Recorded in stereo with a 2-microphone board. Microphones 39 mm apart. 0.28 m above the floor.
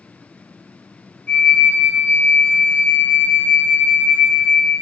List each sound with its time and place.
1.3 s a flute: 35° left (ahead or behind), 0.5 m